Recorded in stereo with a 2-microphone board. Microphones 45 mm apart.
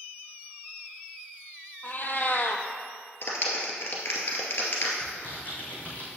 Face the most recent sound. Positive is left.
turn(degrees=40)  # may be behind; listen again after turning